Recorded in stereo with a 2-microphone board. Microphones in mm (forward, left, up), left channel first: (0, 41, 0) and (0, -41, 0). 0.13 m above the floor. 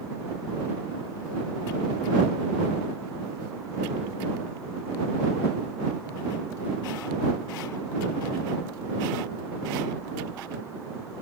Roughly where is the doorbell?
I don't hear a doorbell.